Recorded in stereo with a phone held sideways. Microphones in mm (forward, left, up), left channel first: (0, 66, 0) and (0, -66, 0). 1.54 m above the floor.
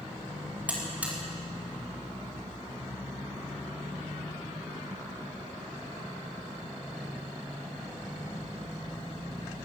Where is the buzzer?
10° right (ahead or behind), 5 m.